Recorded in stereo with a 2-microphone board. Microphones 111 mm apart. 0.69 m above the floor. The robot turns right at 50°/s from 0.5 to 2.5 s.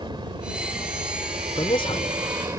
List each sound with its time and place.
0.0 s a helicopter: 135° right; by 2.6 s 35° right
1.6 s a man speaking: 40° left (ahead or behind); by 2.1 s 65° left (ahead or behind)